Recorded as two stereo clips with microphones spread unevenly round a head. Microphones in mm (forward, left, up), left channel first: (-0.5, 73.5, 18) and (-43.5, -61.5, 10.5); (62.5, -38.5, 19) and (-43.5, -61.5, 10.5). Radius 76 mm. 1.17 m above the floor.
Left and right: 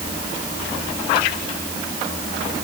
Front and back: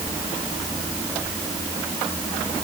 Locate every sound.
Only background noise.